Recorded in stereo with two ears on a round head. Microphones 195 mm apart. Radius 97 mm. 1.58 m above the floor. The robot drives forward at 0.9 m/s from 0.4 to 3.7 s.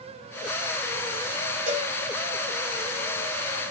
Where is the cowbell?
35° right (ahead or behind), 6 m.